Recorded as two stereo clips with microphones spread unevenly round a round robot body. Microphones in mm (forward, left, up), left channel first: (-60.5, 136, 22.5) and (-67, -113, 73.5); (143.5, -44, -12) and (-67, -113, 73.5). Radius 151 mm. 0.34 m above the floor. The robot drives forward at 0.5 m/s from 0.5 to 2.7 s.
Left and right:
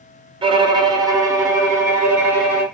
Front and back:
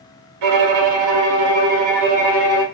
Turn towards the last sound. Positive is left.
turn(degrees=-175)